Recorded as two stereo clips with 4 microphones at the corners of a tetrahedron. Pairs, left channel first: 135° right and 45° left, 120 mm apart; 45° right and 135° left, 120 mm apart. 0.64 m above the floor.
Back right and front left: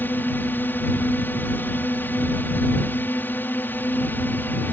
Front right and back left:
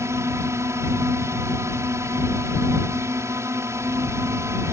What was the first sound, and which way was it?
A drone, 170° left.